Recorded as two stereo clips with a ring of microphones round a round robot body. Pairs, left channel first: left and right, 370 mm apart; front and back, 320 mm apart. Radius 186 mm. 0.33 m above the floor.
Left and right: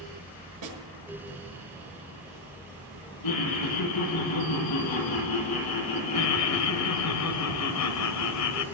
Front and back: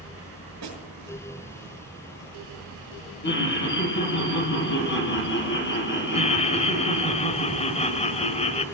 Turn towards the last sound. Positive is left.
turn(degrees=65)